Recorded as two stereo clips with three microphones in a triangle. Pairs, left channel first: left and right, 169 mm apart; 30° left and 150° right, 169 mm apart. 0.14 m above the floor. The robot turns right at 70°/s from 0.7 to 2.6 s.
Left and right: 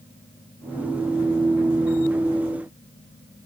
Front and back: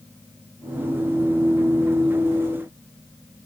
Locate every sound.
Only background noise.